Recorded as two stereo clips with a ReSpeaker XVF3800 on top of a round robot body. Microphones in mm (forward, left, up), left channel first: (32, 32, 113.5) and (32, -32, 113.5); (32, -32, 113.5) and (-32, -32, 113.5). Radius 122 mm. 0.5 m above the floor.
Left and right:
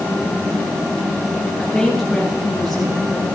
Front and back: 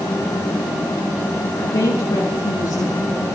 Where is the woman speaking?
5° left, 7.5 m.